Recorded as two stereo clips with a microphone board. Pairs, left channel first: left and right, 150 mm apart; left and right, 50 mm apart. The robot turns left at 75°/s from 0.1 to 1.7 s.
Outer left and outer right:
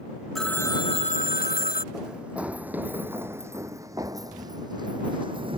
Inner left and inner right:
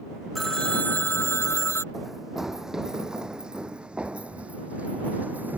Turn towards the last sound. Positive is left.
turn(degrees=-35)  # may be behind; listen again after turning